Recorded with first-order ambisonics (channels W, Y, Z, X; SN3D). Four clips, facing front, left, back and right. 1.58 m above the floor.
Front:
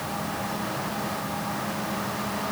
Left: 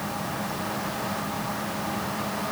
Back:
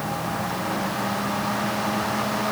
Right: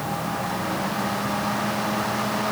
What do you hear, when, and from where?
Only background noise.